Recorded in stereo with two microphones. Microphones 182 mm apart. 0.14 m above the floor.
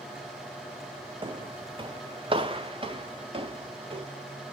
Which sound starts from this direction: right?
Footsteps, at 1.2 s.